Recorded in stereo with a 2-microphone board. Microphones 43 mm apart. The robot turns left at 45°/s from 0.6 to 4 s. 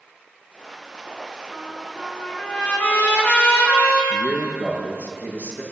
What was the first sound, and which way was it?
A trumpet, 170° right.